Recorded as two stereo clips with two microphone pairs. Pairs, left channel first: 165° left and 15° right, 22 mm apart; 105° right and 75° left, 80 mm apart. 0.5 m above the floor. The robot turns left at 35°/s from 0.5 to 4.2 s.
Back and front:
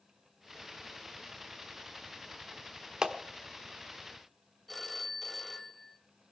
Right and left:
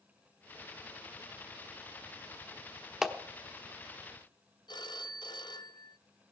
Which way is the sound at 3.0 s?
5° right.